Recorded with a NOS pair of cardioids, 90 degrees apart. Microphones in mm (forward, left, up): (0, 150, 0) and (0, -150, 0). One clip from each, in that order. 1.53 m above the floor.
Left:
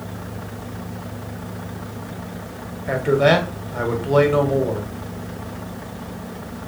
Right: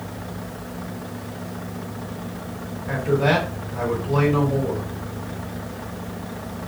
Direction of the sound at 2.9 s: 55° left.